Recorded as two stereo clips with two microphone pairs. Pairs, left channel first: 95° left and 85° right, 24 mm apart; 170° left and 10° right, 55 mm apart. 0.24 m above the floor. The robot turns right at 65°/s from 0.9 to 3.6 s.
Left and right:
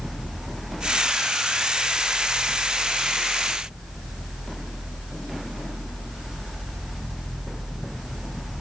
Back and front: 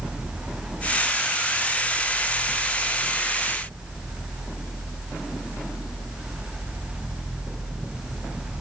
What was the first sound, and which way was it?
Only background noise.